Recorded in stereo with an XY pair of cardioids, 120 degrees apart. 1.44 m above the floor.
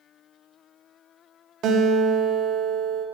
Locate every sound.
1.6 s a guitar: 70° right, 0.5 m